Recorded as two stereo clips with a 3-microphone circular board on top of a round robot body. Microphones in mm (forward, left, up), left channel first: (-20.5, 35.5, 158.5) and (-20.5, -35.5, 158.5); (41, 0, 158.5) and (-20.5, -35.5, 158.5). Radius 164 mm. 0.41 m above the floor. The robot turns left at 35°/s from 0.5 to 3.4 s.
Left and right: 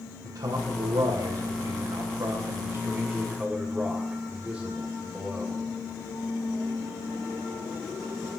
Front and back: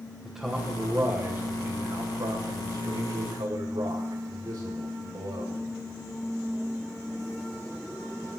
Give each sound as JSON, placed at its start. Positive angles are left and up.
{"t": 0.2, "sound": "a man speaking", "azimuth_deg": -70, "distance_m": 3.0}